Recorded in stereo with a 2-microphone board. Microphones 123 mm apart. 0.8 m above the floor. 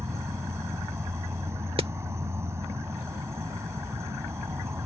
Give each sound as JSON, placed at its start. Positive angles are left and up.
{"t": 0.0, "sound": "an insect", "side_deg": -25}
{"t": 1.8, "sound": "hammering", "side_deg": -50}